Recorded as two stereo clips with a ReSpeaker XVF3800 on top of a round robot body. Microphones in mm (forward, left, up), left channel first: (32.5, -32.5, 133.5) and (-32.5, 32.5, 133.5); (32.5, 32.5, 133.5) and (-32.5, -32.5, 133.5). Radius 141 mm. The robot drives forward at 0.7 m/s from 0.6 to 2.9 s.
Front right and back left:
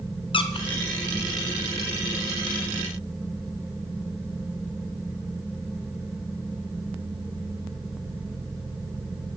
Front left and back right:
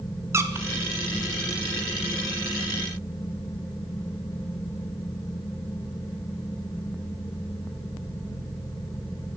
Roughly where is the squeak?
Right.